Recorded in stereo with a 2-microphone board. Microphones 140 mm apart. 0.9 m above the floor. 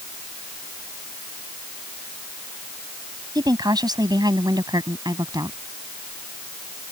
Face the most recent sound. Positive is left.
turn(degrees=-30)  # may be behind; listen again after turning